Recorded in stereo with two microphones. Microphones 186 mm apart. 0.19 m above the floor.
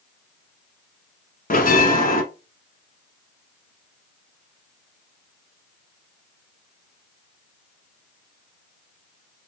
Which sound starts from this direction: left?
A bell, at 1.5 s.